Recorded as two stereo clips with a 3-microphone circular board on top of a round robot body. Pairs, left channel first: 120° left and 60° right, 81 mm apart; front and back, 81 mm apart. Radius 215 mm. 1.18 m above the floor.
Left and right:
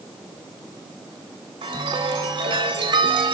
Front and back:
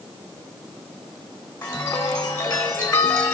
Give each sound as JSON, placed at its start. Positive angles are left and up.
{"t": 1.6, "sound": "a chime", "azimuth_deg": -50, "distance_m": 0.6}